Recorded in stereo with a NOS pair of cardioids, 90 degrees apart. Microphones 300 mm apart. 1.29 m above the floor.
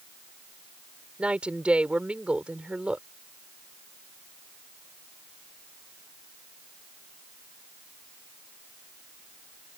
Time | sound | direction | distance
1.2 | a woman speaking | 5° right | ?